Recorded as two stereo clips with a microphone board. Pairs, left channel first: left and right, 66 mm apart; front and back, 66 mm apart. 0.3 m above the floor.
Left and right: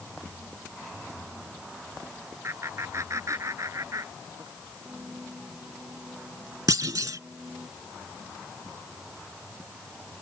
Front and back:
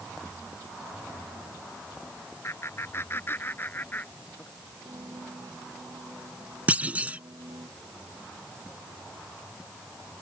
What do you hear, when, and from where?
2.4 s laughter: 45° right; by 4.5 s 65° right
4.8 s a piano: 165° right
6.7 s a clunk: 110° right